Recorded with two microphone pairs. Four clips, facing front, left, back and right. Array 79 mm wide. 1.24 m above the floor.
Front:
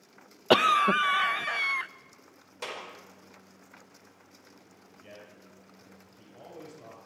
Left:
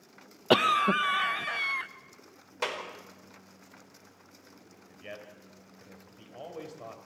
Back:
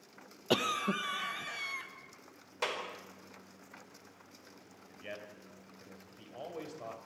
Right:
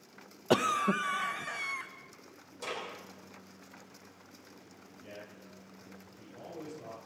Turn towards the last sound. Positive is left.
turn(degrees=140)